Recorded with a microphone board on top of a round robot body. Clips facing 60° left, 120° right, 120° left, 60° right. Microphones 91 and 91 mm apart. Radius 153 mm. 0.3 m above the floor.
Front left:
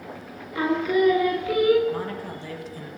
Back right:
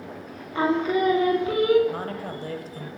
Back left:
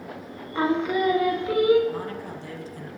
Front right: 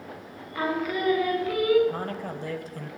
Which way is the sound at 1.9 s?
85° right.